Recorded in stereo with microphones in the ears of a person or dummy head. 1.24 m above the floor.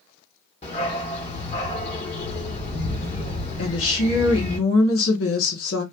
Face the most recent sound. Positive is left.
turn(degrees=75)  # may be behind; listen again after turning